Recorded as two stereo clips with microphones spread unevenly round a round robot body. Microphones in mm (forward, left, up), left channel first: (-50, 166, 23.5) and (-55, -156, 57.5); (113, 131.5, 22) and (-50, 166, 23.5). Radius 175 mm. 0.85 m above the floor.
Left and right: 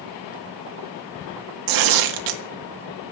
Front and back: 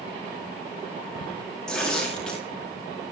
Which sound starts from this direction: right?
Tearing paper, at 1.7 s.